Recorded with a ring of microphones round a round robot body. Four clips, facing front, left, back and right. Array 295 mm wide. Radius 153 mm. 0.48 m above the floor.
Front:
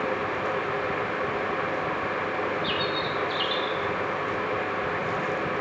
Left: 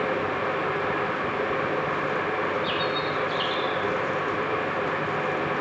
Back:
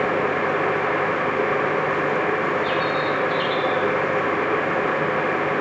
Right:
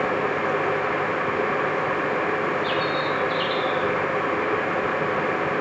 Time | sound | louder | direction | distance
2.6 | a bird | right 3 dB, back 6 dB | 20° right | 5.5 m